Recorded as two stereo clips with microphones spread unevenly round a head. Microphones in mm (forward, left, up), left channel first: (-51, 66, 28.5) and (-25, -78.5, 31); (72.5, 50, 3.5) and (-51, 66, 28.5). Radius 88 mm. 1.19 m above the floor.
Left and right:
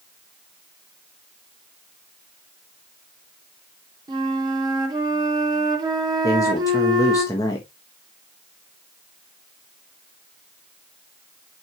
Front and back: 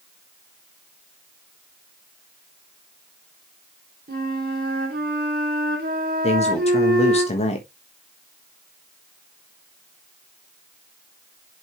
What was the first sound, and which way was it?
A flute, 145° right.